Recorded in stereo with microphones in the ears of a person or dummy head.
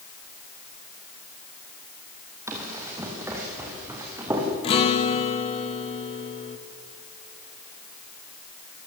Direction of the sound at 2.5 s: 15° right (ahead or behind).